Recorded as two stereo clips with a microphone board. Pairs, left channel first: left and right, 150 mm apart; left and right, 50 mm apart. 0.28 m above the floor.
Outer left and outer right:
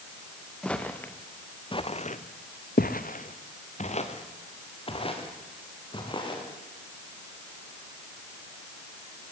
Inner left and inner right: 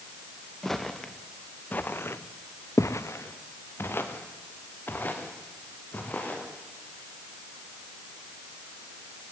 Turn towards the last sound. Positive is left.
turn(degrees=35)  # may be behind; listen again after turning